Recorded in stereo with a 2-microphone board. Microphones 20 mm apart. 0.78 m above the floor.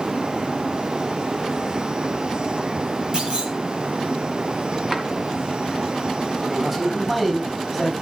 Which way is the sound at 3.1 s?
35° right (ahead or behind).